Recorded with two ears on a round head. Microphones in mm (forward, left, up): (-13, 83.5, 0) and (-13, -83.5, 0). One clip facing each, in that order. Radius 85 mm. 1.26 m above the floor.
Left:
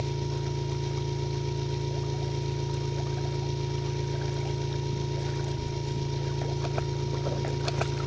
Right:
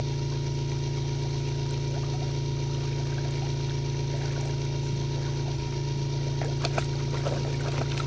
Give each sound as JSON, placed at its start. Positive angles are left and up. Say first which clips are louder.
{"t": 0.0, "sound": "an engine running", "louder": "even", "side_deg": 0, "distance_m": 1.0}